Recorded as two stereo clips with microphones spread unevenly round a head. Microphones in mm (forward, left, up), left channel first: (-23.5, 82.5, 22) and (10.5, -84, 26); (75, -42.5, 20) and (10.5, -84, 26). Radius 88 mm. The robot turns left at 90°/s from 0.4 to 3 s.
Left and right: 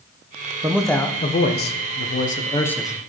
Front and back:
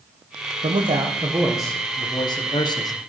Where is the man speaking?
150° right, 1.0 m; by 2.9 s straight ahead, 1.0 m.